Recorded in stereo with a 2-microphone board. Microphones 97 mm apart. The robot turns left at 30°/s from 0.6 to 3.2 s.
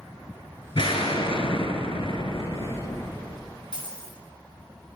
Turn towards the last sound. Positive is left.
turn(degrees=50)  # may be behind; listen again after turning